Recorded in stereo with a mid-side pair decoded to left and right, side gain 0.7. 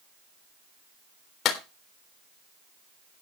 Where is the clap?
45° left, 3.5 m.